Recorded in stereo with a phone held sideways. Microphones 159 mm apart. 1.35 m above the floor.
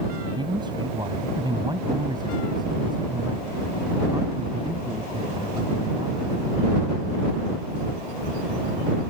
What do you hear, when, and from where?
0.2 s a man speaking: 30° right (ahead or behind); by 6.3 s 25° right (ahead or behind)